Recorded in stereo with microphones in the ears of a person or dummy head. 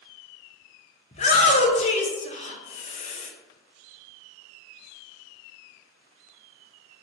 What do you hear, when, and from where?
1.1 s a shout: 30° left (ahead or behind), 0.6 m